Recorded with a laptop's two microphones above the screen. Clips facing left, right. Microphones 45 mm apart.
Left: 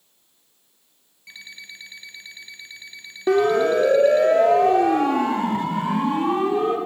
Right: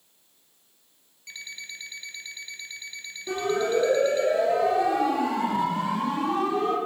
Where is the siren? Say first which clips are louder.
Left 8 dB; 65° left (ahead or behind), 2.5 m; by 6.8 s 35° left (ahead or behind), 4.5 m.